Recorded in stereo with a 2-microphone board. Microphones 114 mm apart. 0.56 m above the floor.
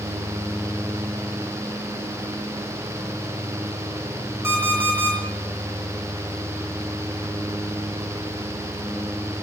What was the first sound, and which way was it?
An alarm clock, 25° right (ahead or behind).